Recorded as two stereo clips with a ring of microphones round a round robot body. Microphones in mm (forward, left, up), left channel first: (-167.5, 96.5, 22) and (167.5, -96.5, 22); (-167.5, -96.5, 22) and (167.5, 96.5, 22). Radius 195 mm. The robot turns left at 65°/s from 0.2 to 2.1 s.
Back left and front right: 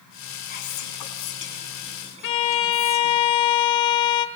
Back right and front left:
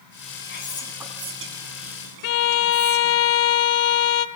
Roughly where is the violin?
Behind.